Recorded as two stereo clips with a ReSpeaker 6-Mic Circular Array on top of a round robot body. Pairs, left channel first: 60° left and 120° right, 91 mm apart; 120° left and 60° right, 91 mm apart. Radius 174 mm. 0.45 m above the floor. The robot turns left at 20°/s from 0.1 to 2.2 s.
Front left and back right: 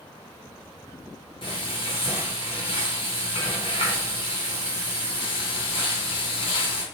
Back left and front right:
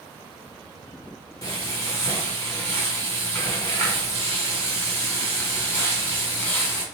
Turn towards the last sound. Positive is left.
turn(degrees=55)